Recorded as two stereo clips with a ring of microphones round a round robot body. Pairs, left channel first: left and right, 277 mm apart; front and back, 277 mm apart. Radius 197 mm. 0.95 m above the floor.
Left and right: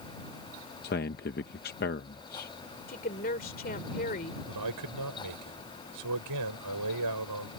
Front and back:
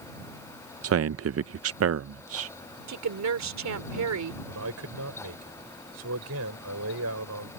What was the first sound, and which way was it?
A man speaking, 145° left.